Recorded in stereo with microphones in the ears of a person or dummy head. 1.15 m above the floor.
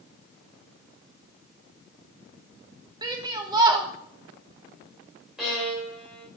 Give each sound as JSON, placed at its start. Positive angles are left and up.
{"t": 3.0, "sound": "a shout", "side_deg": -20, "distance_m": 0.9}
{"t": 5.4, "sound": "a violin", "side_deg": 0, "distance_m": 1.8}